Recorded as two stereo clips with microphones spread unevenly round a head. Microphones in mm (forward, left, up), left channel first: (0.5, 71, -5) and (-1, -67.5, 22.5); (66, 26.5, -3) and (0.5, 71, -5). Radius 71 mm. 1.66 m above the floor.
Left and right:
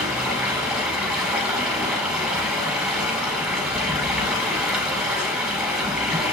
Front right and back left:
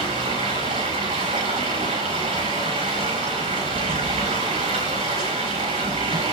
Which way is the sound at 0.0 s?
175° right.